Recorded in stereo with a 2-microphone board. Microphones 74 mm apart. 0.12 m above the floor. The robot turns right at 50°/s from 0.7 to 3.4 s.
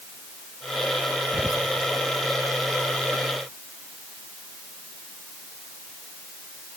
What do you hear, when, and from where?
1.3 s whispering: 10° right (ahead or behind), 1.3 m; by 1.7 s centre (ahead or behind), 1.3 m